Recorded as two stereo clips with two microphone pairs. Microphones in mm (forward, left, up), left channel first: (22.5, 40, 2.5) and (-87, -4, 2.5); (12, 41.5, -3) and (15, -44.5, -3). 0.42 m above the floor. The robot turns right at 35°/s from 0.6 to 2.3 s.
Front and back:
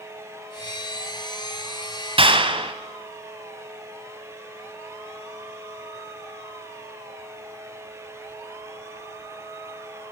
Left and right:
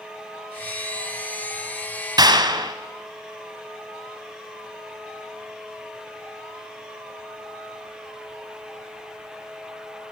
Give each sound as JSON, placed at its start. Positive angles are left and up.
{"t": 2.2, "sound": "a clap", "azimuth_deg": -125, "distance_m": 1.9}